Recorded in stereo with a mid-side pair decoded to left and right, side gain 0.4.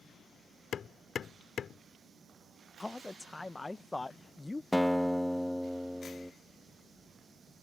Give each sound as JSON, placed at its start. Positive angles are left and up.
{"t": 0.7, "sound": "hammering", "azimuth_deg": 60}
{"t": 2.8, "sound": "a man speaking", "azimuth_deg": 20}
{"t": 4.7, "sound": "a guitar", "azimuth_deg": 5}